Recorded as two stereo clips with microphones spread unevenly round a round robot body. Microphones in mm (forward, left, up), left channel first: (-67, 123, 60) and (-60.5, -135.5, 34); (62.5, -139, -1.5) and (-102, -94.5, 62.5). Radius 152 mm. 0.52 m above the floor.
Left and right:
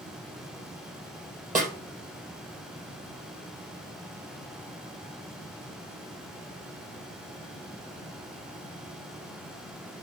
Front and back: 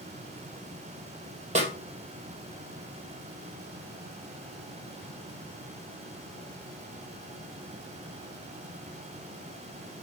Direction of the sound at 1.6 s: 150° right.